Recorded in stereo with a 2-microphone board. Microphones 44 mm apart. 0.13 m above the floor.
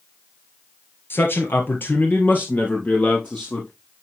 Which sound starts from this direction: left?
A man speaking, at 1.1 s.